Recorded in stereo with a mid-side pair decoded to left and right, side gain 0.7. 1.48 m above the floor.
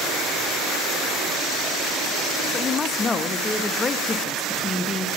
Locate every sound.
2.5 s a woman speaking: 25° left, 0.5 m